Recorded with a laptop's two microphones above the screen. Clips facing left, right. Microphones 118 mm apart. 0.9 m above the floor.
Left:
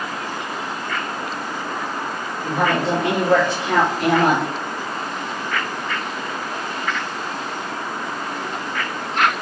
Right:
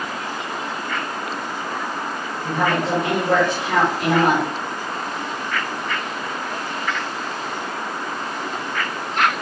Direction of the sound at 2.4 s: 30° left (ahead or behind).